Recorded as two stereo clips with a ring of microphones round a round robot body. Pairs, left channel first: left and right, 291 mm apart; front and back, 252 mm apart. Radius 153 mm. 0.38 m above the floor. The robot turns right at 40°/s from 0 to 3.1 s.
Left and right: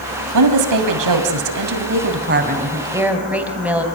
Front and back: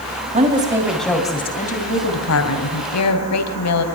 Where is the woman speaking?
115° right, 2.5 m; by 3.9 s 5° right, 2.5 m.